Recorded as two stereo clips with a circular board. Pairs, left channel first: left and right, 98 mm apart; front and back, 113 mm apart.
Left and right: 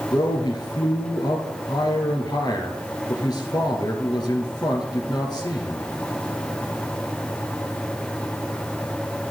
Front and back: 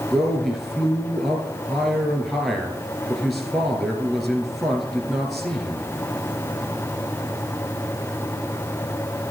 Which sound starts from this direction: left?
A man speaking, at 0.1 s.